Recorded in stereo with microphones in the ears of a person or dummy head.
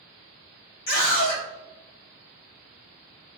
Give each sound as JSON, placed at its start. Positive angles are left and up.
{"t": 0.9, "sound": "a scream", "side_deg": 60, "distance_m": 3.0}